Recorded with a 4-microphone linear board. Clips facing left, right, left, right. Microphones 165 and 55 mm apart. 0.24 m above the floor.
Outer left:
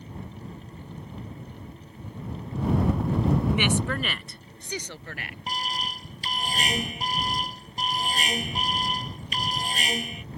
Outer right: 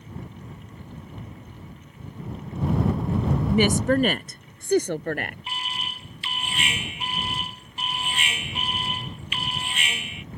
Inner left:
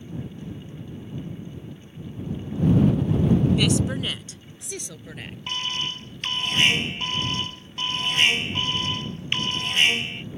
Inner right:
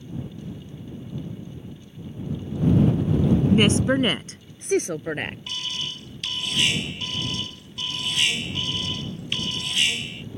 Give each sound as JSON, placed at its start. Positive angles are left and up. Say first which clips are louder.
{"t": 3.5, "sound": "a woman speaking", "louder": "outer right 6 dB, inner right 4 dB", "side_deg": -40}
{"t": 5.5, "sound": "an alarm", "louder": "outer left 3 dB, inner left 3 dB", "side_deg": 40}